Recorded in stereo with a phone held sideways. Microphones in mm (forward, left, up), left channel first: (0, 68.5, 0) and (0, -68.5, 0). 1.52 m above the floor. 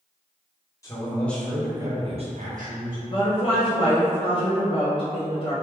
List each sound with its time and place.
0.8 s a man speaking: 25° left (ahead or behind), 1.4 m; by 3.0 s 80° right, 1.4 m
3.1 s a woman speaking: 35° left (ahead or behind), 0.7 m